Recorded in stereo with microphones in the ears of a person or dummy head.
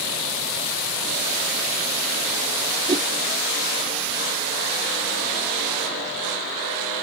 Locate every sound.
2.9 s a whoosh: 30° right (ahead or behind)